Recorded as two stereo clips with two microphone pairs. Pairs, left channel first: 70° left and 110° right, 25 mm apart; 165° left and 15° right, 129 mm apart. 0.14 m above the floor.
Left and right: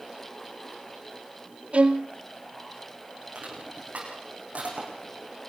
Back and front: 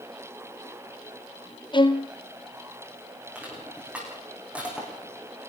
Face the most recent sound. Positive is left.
turn(degrees=-95)